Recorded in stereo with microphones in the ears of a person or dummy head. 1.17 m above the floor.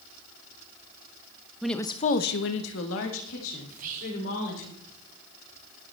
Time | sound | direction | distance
1.6 | a woman speaking | 5° right (ahead or behind) | 0.8 m
3.7 | whispering | 45° right (ahead or behind) | 3 m